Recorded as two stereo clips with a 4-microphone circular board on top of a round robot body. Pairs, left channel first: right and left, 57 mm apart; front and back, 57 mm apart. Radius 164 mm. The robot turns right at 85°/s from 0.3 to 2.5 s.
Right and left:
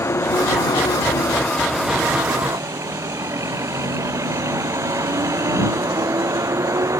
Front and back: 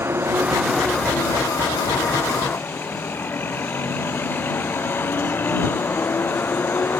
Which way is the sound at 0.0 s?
130° right.